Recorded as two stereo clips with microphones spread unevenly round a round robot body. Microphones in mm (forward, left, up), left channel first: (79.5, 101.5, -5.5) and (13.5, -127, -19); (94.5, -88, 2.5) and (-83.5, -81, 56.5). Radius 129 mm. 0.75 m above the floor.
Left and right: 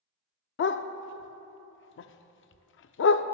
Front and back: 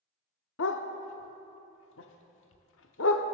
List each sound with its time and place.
0.6 s a dog barking: 35° left, 0.5 m